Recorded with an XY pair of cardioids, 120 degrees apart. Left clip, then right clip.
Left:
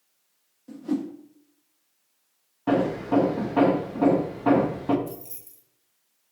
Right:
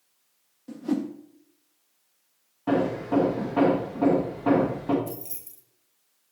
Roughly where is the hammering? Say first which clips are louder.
Left 1 dB; ahead.